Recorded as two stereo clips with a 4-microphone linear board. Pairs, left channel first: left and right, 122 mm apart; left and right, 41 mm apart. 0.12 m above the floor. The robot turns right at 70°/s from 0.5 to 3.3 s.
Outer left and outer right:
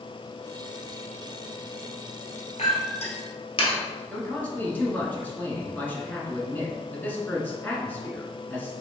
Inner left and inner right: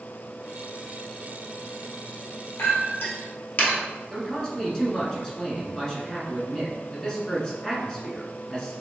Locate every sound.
2.6 s a clink: 60° left (ahead or behind), 1.4 m; by 3.8 s 45° left (ahead or behind), 1.4 m
4.1 s a man speaking: 15° left (ahead or behind), 1.1 m